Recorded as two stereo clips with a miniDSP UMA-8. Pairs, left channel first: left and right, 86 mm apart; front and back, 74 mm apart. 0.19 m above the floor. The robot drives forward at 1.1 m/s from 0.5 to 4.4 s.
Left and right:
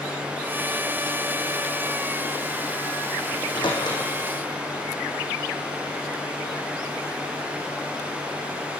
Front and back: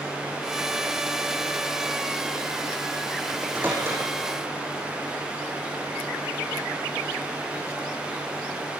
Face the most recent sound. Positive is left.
turn(degrees=125)